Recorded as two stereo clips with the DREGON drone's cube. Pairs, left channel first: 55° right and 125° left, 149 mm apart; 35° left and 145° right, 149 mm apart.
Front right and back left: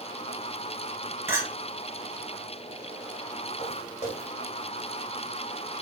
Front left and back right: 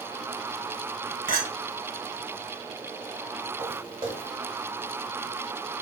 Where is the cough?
No cough in this recording.